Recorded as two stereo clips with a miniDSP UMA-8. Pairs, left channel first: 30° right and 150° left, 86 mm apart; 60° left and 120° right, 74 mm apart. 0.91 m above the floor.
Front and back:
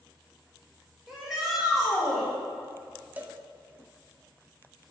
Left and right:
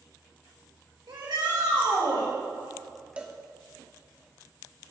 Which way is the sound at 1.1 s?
125° right.